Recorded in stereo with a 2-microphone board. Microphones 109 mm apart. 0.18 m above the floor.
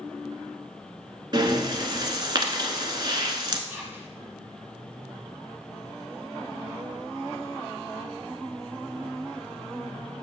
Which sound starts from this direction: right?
Breathing, at 1.3 s.